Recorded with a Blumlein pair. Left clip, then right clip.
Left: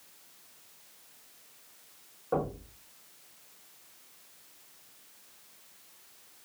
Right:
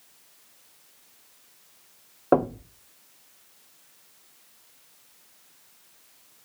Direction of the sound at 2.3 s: 40° right.